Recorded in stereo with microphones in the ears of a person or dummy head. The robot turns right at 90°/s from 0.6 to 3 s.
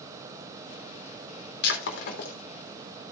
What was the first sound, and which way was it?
Breaking glass, 65° left (ahead or behind).